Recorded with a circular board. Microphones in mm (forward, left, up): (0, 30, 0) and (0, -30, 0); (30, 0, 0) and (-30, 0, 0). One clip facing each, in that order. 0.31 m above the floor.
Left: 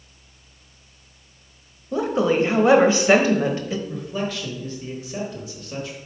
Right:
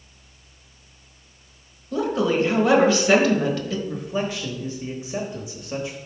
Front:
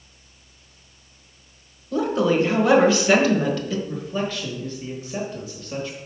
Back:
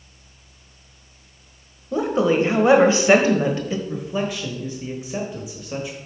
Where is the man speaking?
130° right, 1.0 m.